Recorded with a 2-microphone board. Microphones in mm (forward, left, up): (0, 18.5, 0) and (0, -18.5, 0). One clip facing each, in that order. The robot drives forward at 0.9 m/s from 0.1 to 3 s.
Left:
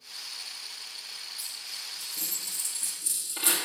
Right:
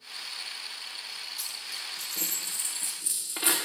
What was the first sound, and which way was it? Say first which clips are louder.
A dropped coin: right 2 dB; 65° right (ahead or behind).